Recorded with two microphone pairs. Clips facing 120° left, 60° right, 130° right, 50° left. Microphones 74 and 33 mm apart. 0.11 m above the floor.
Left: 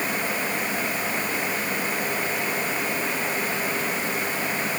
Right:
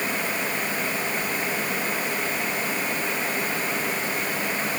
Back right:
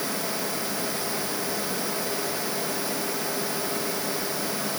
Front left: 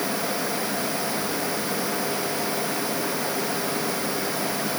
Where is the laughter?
No laughter in this recording.